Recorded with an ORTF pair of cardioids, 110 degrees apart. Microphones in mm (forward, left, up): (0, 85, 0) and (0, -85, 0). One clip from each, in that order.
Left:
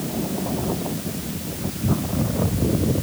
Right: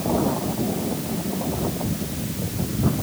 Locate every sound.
Only background noise.